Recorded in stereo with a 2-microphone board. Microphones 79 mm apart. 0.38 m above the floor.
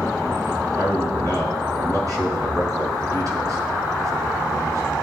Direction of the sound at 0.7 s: 45° right (ahead or behind).